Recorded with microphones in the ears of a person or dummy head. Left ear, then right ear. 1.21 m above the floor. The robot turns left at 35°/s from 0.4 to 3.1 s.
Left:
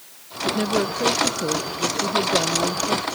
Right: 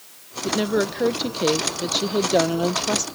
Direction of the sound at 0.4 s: 15° right.